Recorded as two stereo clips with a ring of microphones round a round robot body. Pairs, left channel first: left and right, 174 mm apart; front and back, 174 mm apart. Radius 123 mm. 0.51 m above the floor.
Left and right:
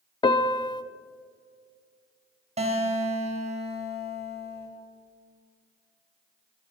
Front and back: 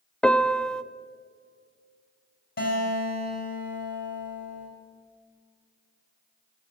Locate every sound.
0.2 s a piano: 80° left, 0.5 m
2.6 s a guitar: 40° right, 3 m